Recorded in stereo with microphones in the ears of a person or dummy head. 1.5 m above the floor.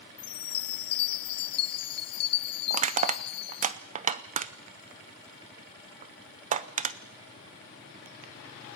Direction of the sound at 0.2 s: 35° left (ahead or behind).